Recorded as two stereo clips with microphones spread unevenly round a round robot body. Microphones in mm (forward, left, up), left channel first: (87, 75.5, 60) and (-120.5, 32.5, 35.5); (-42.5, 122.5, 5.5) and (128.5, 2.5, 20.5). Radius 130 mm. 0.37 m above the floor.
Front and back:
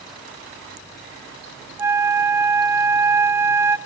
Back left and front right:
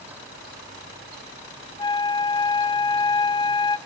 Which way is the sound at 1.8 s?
150° left.